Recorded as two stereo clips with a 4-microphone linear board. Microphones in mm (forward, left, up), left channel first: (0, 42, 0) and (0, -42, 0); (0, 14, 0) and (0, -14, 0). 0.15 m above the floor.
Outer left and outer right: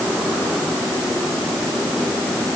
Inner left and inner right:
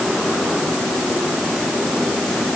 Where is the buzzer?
No buzzer in this recording.